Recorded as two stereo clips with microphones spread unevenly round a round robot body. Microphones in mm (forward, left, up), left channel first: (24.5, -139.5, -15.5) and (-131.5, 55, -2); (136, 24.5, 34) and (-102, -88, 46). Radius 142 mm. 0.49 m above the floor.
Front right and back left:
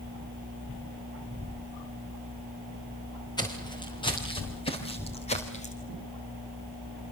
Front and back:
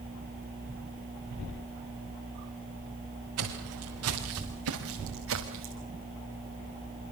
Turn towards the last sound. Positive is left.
turn(degrees=-115)